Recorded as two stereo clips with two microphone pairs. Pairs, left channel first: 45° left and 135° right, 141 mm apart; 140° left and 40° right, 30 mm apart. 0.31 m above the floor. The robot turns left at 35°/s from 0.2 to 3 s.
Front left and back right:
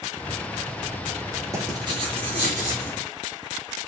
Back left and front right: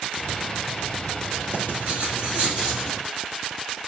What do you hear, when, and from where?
1.5 s writing: 70° right, 4.5 m; by 3.0 s 120° right, 4.5 m